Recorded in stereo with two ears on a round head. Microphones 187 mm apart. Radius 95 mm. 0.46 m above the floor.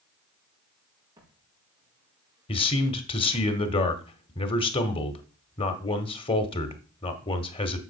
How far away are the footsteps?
About 6.5 m.